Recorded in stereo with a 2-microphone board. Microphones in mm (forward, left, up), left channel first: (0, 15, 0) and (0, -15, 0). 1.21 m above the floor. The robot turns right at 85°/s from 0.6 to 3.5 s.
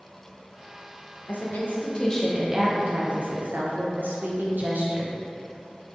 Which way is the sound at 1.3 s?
90° left.